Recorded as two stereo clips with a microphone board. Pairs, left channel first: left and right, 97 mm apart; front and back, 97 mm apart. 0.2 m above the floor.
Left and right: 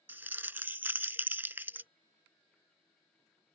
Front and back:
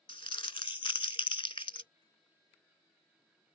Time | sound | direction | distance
0.1 | crumpling | 20° right | ?